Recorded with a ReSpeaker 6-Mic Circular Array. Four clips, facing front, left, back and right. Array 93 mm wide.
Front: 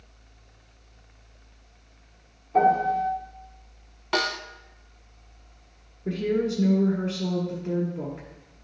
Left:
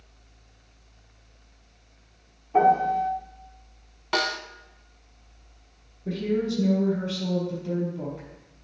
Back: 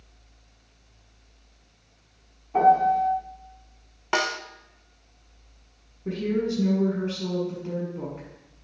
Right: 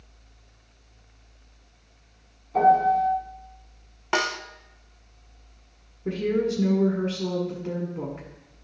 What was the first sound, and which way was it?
A piano, 120° left.